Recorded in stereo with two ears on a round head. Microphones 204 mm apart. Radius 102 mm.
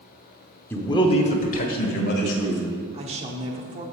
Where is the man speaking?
10° left (ahead or behind), 0.9 m; by 2.6 s 50° left (ahead or behind), 2.0 m.